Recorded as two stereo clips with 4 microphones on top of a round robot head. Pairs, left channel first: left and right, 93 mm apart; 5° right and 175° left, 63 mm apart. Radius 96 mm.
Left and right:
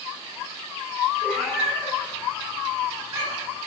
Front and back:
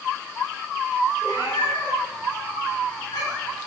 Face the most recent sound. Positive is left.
turn(degrees=-30)